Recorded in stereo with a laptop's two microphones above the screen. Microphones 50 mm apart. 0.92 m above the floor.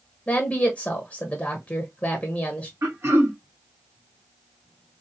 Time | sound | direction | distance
0.3 | a woman speaking | 25° left (ahead or behind) | 0.7 m
2.8 | throat clearing | 60° right (ahead or behind) | 0.9 m